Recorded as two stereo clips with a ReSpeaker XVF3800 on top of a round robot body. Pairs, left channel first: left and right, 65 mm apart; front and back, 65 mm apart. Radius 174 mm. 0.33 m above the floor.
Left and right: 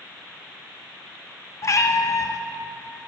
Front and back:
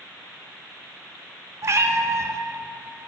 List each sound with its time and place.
1.6 s a cat meowing: 135° left, 0.7 m